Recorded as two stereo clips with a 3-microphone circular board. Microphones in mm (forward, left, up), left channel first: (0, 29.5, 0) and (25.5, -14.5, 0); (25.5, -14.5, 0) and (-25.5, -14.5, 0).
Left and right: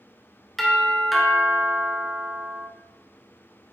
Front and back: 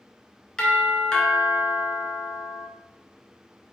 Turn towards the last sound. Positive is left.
turn(degrees=35)